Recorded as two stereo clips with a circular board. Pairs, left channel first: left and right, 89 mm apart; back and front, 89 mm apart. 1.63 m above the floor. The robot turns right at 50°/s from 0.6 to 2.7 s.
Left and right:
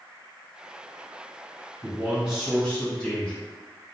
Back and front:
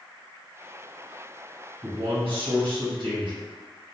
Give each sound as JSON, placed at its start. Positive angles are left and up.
{"t": 1.8, "sound": "a man speaking", "azimuth_deg": -30, "distance_m": 1.7}